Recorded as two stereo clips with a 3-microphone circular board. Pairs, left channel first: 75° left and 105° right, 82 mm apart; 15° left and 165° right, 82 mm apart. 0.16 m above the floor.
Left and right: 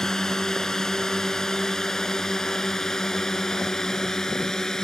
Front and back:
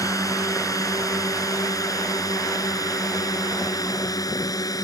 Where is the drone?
5° right.